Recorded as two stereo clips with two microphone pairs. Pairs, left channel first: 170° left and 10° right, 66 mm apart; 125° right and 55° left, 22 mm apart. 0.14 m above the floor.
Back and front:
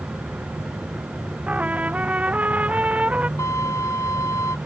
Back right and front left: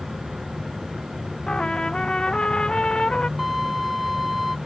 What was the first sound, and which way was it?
An aircraft, 45° left.